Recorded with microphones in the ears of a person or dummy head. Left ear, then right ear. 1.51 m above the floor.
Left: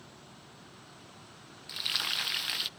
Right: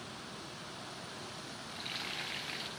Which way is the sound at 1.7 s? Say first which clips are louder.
Left 10 dB; 55° left (ahead or behind).